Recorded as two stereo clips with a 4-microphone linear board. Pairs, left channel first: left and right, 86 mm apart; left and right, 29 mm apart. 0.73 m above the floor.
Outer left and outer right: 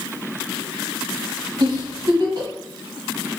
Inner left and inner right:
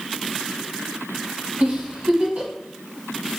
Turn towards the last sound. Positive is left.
turn(degrees=-60)  # may be behind; listen again after turning